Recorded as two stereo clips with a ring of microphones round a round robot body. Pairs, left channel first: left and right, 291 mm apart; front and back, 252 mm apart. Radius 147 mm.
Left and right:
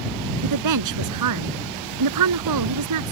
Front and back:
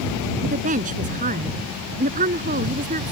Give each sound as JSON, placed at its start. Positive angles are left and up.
{"t": 0.4, "sound": "a woman speaking", "azimuth_deg": -115}